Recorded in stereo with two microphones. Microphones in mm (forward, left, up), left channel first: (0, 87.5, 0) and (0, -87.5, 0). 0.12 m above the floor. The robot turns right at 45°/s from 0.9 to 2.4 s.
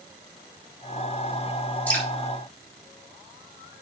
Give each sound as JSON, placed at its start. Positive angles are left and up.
{"t": 1.9, "sound": "dripping", "side_deg": 10, "distance_m": 3.5}